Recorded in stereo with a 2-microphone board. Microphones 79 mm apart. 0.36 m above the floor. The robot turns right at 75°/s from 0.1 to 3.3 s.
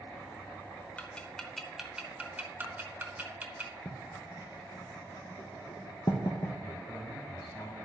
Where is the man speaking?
65° left (ahead or behind), 3 m.